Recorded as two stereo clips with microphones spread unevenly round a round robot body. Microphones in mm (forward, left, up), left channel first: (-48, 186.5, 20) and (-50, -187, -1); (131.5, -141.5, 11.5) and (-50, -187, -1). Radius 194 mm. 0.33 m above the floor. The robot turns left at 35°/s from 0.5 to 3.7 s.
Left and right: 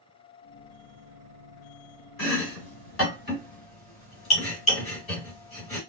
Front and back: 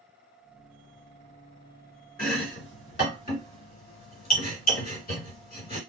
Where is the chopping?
75° left, 1.8 m; by 5.8 s 20° left, 1.8 m.